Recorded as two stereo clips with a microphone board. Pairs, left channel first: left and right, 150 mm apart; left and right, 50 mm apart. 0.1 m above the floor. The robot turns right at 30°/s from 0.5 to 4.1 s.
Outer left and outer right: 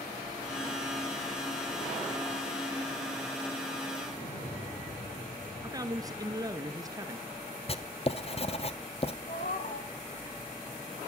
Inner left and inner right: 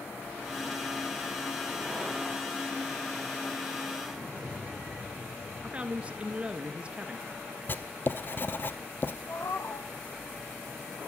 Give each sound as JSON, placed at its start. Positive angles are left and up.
{"t": 4.1, "sound": "an explosion", "side_deg": 65, "distance_m": 3.0}
{"t": 5.6, "sound": "a man speaking", "side_deg": -25, "distance_m": 1.2}
{"t": 7.7, "sound": "writing", "side_deg": 40, "distance_m": 0.8}
{"t": 9.3, "sound": "a cat meowing", "side_deg": 65, "distance_m": 1.8}